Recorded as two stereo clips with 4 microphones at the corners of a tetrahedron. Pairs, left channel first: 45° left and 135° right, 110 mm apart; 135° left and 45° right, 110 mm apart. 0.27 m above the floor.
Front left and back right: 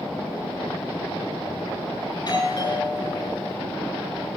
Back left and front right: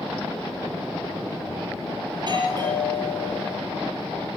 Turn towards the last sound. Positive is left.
turn(degrees=-5)